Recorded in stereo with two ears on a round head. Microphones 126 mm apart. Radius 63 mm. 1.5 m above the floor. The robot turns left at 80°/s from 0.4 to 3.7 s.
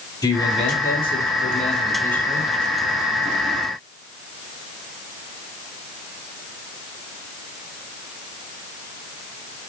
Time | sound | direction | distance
0.2 | a man speaking | 150° left | 5 m